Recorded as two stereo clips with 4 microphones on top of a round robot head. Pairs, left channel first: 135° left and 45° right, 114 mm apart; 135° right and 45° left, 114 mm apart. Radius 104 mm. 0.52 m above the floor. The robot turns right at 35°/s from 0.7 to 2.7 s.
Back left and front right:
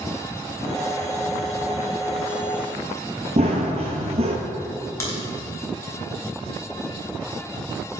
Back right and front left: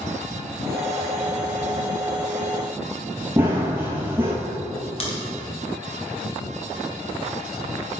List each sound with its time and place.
3.4 s running footsteps: 20° right, 0.6 m
5.0 s a crack: 160° right, 1.8 m